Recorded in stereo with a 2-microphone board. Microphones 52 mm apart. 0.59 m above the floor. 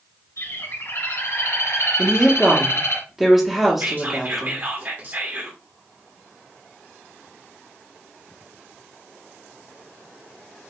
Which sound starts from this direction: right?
Whispering, at 3.8 s.